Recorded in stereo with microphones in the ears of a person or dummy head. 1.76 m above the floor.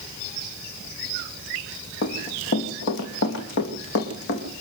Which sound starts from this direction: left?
Running footsteps, at 2.0 s.